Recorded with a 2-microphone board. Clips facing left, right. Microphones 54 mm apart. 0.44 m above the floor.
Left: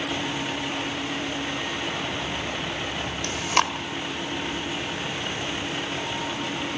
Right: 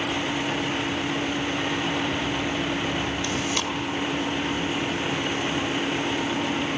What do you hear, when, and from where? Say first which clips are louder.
3.2 s chewing: left 3 dB; 55° left (ahead or behind), 1.8 m